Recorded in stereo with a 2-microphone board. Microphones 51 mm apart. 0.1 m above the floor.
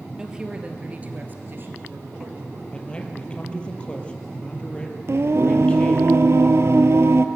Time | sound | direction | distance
0.2 | a woman speaking | 15° right (ahead or behind) | 2.5 m
2.7 | a man speaking | 20° left (ahead or behind) | 2.5 m
5.1 | singing | 60° right (ahead or behind) | 1.1 m